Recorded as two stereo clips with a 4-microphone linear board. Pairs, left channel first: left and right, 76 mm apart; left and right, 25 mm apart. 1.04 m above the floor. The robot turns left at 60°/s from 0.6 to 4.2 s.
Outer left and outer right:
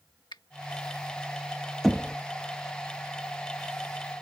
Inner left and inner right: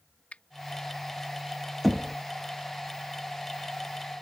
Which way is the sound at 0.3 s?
85° left.